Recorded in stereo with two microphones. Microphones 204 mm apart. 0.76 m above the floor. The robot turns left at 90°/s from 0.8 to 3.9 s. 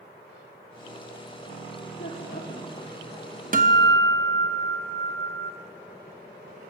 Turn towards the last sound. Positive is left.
turn(degrees=-80)